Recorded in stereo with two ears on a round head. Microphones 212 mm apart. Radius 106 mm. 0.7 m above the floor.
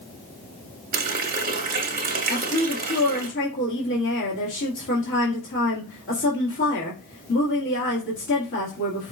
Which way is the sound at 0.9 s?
40° right (ahead or behind).